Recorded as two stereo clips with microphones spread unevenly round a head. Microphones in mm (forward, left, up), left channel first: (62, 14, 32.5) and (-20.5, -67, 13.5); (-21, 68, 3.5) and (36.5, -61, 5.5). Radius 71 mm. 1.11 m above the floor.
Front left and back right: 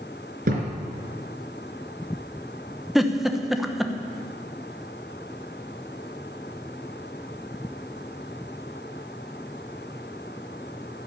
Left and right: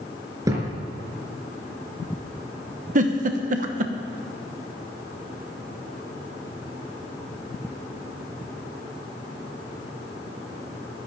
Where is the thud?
130° right, 3.5 m.